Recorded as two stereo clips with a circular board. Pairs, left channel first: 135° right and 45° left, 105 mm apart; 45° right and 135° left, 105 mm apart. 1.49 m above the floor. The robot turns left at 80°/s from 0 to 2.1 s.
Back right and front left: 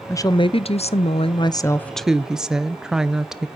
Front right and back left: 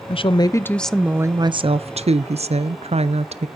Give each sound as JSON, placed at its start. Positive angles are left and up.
{"t": 0.1, "sound": "a woman speaking", "azimuth_deg": -70, "distance_m": 0.5}